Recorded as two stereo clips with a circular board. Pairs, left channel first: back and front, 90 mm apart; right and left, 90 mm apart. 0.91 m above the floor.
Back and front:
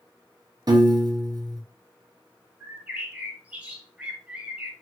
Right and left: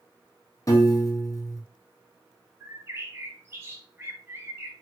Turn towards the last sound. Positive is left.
turn(degrees=60)